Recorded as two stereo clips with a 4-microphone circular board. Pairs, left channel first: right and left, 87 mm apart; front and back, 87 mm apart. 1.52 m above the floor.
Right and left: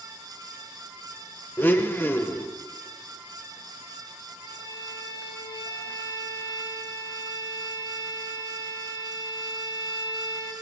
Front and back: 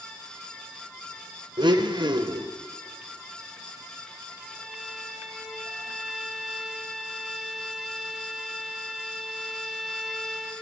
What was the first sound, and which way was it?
A blender, 155° right.